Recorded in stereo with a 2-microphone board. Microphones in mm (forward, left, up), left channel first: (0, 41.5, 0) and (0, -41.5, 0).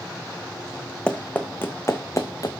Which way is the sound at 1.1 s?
10° left (ahead or behind).